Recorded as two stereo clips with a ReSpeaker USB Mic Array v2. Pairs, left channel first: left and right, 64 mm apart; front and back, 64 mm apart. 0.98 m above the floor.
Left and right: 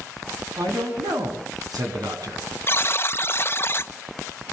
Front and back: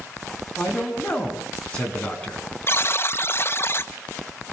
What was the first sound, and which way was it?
A man speaking, 70° right.